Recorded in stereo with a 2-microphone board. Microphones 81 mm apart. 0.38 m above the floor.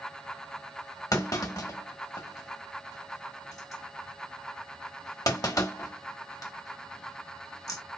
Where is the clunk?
45° left (ahead or behind), 1.4 m.